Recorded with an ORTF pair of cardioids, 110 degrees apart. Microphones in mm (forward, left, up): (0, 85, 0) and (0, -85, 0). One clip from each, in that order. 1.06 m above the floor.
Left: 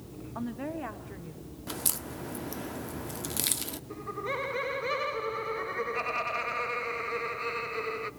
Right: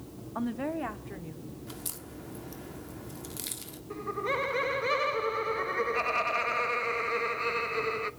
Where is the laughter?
15° right, 1.2 m.